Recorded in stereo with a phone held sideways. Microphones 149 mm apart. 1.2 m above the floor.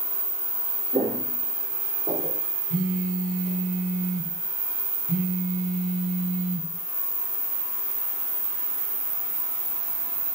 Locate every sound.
0.9 s footsteps: 35° right (ahead or behind), 2.5 m; by 2.4 s 30° right (ahead or behind), 3.5 m
2.7 s a phone buzzing: 60° right (ahead or behind), 2.5 m